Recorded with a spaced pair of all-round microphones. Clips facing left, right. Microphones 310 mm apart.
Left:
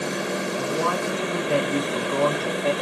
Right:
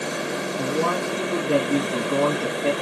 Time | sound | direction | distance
0.6 | a man speaking | 55° right (ahead or behind) | 1.9 m